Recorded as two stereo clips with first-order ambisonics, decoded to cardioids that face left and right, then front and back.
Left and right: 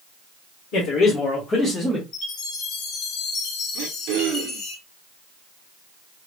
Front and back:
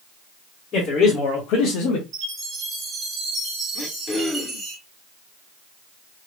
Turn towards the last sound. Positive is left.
turn(degrees=-75)